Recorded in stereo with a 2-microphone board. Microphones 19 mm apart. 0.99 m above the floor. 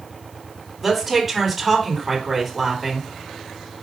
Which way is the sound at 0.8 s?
5° left (ahead or behind).